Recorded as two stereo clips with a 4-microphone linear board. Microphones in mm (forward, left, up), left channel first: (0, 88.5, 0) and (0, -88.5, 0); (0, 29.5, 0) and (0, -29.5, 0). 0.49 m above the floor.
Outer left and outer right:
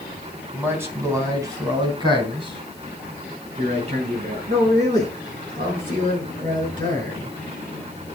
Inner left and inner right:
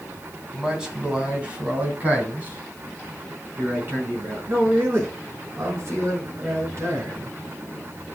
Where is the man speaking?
10° right (ahead or behind), 2.5 m; by 7.3 s 50° right (ahead or behind), 6 m.